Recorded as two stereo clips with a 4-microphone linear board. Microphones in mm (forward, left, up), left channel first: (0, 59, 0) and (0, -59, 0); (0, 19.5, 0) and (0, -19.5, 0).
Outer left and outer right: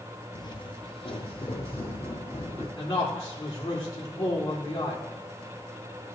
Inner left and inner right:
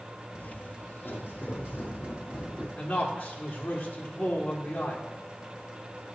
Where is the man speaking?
35° left (ahead or behind), 2 m.